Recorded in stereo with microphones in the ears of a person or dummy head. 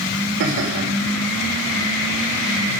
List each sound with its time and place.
0.4 s laughter: 80° right, 3.5 m